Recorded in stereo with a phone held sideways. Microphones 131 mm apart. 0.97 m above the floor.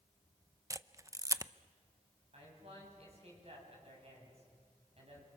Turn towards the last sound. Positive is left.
turn(degrees=-50)  # may be behind; listen again after turning